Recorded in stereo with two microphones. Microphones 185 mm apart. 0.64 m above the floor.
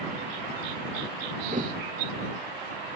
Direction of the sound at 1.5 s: 45° right (ahead or behind).